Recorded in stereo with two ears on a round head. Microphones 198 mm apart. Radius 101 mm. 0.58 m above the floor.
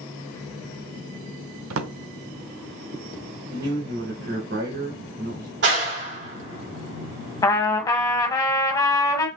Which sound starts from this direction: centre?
A trumpet, at 7.4 s.